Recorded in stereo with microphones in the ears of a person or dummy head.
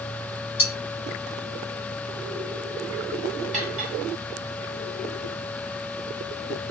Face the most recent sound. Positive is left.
turn(degrees=-30)  # may be behind; listen again after turning